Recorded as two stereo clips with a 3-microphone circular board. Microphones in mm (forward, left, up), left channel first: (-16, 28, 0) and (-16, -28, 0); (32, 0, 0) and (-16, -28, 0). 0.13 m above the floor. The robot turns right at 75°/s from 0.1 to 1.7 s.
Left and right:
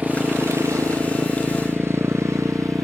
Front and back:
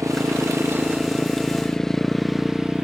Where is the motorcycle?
150° right; by 2.9 s 80° right.